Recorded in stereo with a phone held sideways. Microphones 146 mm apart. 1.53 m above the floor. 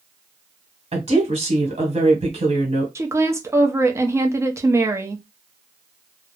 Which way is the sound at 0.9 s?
50° right (ahead or behind).